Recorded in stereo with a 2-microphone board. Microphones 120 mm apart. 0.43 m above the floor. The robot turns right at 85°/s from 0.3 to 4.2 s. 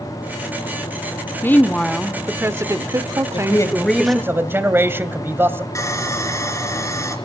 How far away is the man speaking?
About 2 m.